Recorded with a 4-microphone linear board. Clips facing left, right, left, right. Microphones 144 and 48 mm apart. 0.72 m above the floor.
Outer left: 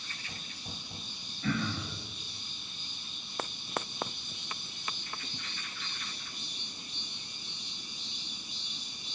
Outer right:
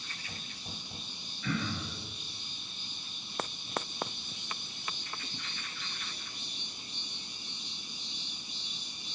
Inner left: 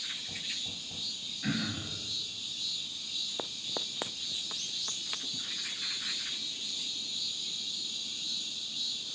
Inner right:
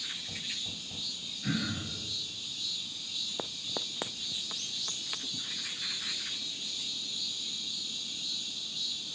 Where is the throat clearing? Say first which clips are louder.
Outer left 2 dB, even; 35° left (ahead or behind), 0.9 m.